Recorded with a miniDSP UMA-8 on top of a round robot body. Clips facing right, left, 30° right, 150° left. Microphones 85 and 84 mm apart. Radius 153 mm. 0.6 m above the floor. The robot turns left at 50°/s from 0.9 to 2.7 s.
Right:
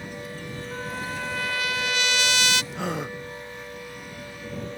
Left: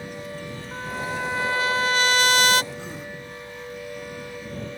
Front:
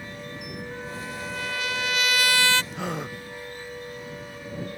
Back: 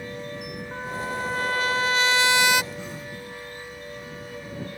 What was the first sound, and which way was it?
A trumpet, 165° left.